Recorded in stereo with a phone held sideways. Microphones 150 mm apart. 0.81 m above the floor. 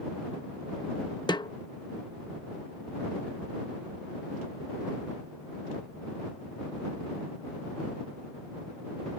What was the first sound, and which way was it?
A snare drum, 30° left (ahead or behind).